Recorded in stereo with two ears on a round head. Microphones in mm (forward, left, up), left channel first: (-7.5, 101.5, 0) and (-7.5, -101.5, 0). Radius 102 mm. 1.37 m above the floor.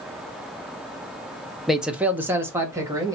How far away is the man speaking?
About 0.5 m.